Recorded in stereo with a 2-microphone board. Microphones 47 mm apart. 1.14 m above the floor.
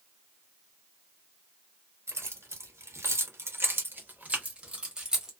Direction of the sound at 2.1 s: 70° right (ahead or behind).